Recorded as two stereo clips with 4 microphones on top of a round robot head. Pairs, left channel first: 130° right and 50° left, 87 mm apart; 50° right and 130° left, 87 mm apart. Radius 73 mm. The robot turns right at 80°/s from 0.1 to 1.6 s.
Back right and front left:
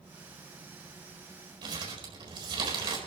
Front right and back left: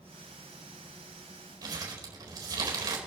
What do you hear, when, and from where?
1.6 s crumpling: 85° left, 4.5 m